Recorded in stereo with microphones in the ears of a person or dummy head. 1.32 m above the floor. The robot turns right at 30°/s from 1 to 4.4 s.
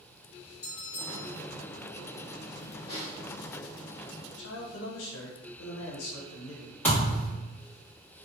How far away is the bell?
About 1.6 m.